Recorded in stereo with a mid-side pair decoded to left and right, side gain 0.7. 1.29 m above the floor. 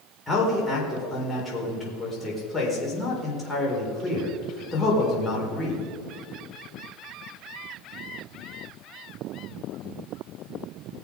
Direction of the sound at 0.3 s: 15° left.